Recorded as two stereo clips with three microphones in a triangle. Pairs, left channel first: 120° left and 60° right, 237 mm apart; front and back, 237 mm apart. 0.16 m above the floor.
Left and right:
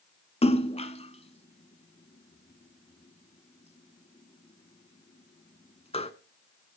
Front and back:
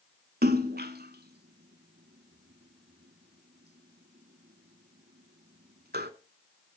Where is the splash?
170° left, 0.9 m.